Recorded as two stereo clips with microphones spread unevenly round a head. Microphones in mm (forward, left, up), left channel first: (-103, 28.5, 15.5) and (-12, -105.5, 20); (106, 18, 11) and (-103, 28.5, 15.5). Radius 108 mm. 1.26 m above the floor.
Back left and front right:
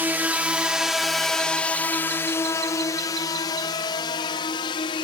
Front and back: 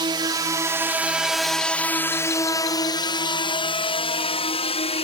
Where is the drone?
130° right; by 5.0 s 55° left.